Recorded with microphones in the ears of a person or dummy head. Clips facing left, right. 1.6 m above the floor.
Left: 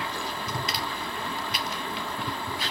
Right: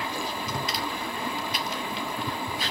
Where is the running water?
10° right (ahead or behind), 1.4 m.